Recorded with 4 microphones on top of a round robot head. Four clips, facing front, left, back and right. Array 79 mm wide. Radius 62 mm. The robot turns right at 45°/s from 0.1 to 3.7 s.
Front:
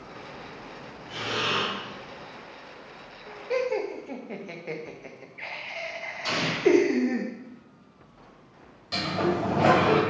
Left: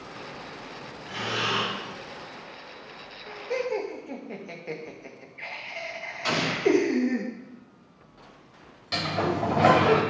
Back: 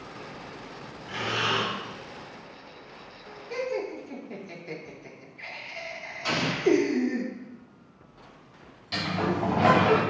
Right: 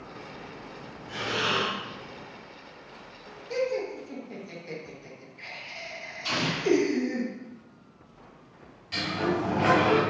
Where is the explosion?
95° left, 2 m.